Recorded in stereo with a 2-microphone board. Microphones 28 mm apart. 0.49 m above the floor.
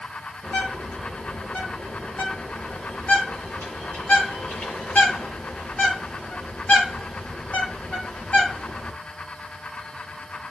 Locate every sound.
0.4 s a bird: 70° left (ahead or behind), 7 m